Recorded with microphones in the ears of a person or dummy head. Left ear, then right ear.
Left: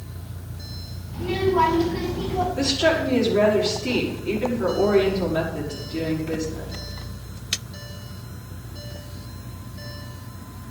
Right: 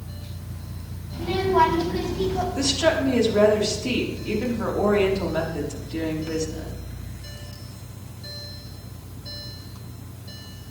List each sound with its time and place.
1.1 s a child speaking: 65° right (ahead or behind), 6 m; by 2.5 s 70° right (ahead or behind), 6.5 m
2.6 s a woman speaking: 90° right, 5.5 m